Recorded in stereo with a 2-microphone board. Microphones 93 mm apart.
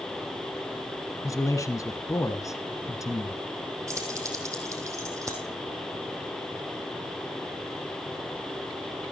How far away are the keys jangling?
About 3.5 m.